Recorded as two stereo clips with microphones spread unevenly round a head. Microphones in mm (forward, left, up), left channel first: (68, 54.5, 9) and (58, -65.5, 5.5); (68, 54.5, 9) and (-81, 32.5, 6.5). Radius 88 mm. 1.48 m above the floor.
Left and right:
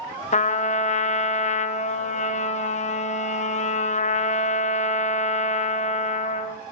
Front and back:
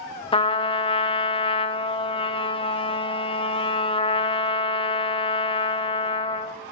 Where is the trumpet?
65° left, 0.8 m.